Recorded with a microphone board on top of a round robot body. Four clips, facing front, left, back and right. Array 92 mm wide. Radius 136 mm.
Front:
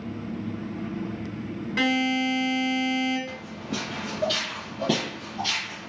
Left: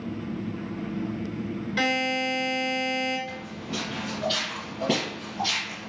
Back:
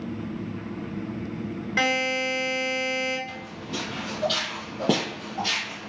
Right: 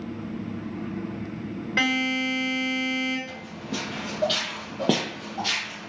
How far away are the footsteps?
About 0.8 m.